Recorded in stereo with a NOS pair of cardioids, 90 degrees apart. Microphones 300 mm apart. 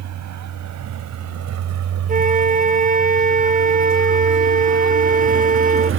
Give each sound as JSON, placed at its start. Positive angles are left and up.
{"t": 0.0, "sound": "a vehicle", "azimuth_deg": -65}
{"t": 2.1, "sound": "a flute", "azimuth_deg": -25}